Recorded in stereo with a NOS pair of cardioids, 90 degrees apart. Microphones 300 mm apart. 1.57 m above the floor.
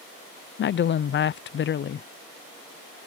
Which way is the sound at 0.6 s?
40° left.